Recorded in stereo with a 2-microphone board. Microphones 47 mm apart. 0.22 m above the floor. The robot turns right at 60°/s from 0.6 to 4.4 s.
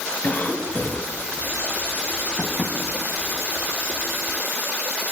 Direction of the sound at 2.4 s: 20° left (ahead or behind).